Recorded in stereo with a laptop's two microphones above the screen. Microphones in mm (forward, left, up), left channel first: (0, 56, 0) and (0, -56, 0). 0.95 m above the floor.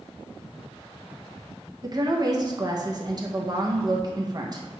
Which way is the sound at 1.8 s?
35° right (ahead or behind).